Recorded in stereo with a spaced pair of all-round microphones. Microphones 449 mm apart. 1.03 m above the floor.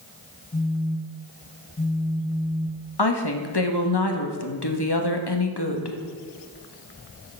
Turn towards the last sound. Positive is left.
turn(degrees=60)  # may be behind; listen again after turning